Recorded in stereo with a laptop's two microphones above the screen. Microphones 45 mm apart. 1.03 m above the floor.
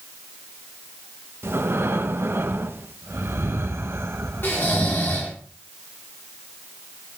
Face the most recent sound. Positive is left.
turn(degrees=55)  # may be behind; listen again after turning